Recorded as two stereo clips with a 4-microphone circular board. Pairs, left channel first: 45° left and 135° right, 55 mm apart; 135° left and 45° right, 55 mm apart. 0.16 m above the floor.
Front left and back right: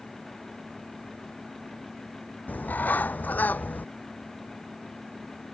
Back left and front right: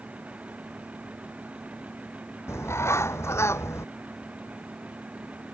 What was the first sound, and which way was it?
A bird, 100° left.